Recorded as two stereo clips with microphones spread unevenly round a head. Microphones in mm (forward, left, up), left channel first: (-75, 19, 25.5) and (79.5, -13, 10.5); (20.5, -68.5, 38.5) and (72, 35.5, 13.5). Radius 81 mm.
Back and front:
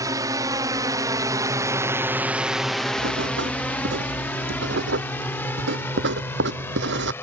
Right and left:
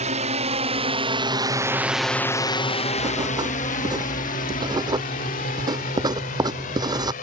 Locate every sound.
0.0 s a drone: 55° left; by 7.2 s 115° right
3.0 s writing: 5° left